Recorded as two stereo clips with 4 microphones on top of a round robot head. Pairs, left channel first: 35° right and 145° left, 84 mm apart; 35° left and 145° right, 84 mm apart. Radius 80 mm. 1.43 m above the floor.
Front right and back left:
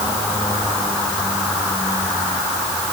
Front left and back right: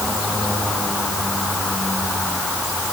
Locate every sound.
Only background noise.